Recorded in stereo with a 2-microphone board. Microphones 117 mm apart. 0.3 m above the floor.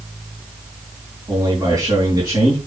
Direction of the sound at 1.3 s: 40° right (ahead or behind).